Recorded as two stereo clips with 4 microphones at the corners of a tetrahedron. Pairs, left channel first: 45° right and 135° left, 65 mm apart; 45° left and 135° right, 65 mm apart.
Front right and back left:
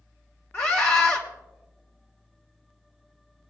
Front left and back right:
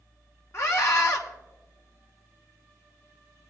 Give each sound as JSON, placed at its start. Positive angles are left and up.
{"t": 0.5, "sound": "a scream", "azimuth_deg": 5, "distance_m": 2.0}